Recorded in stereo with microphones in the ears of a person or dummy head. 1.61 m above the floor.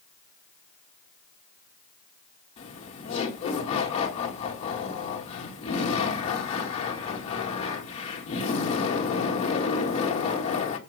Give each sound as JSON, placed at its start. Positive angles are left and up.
{"t": 2.6, "sound": "laughter", "side_deg": 40, "distance_m": 2.0}